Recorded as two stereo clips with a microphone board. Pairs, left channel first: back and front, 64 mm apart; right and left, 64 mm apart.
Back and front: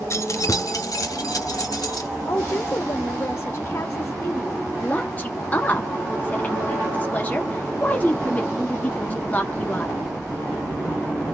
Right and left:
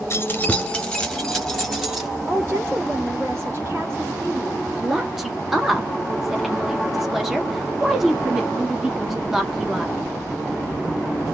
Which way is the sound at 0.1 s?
140° right.